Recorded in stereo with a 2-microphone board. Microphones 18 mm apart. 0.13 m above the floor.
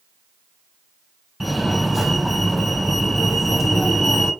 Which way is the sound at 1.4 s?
Centre (ahead or behind).